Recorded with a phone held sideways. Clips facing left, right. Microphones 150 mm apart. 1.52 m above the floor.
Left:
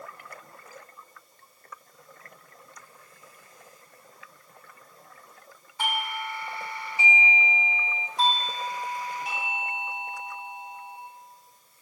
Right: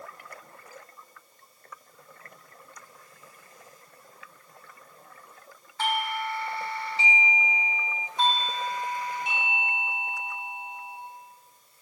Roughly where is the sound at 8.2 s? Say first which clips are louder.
Even; centre.